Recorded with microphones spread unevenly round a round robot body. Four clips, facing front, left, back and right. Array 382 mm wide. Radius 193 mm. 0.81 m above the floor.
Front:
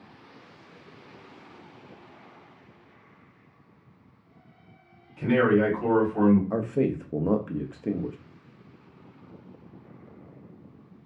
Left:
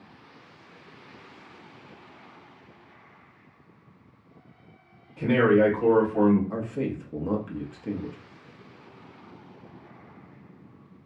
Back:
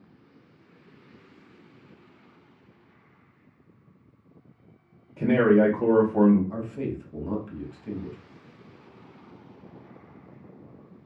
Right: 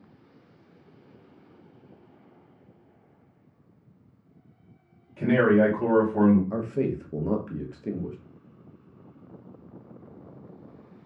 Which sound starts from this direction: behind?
A man speaking, at 5.2 s.